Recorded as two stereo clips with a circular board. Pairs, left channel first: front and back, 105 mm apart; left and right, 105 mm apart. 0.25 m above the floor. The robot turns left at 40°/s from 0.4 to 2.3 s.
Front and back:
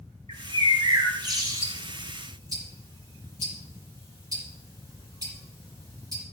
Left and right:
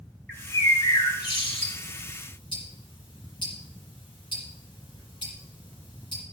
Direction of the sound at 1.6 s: 155° left.